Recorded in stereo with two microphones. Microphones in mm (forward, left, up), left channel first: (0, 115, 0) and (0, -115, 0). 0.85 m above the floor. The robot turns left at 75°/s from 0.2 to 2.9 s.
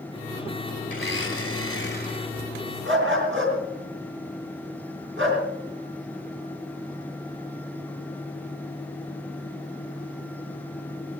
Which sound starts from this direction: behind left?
A blender, at 0.9 s.